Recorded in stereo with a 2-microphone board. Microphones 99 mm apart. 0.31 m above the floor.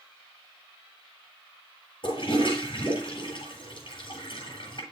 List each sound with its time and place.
2.0 s a toilet flushing: 55° left (ahead or behind), 8.5 m